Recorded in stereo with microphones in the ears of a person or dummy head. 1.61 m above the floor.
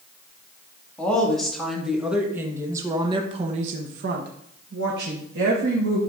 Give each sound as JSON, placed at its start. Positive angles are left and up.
{"t": 1.0, "sound": "a woman speaking", "side_deg": 10, "distance_m": 2.5}